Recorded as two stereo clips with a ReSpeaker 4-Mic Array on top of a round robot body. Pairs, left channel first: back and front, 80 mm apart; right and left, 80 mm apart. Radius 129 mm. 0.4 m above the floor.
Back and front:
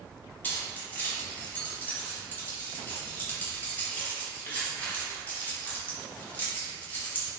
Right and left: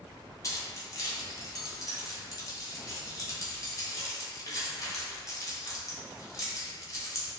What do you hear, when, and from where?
0.4 s keys jangling: 120° right, 1.0 m